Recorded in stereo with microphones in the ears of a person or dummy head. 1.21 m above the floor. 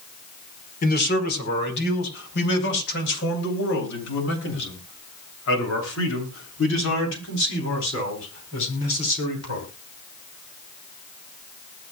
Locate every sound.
0.8 s a man speaking: 50° left (ahead or behind), 5 m; by 9.6 s 80° left, 12 m